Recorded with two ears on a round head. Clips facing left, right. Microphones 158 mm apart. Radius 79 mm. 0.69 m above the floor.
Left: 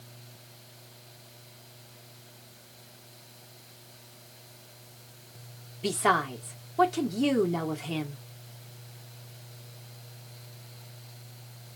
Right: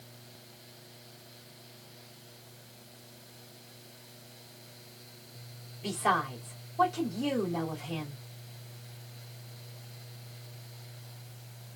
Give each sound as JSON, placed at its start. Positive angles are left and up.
{"t": 5.8, "sound": "a woman speaking", "side_deg": 70, "distance_m": 1.4}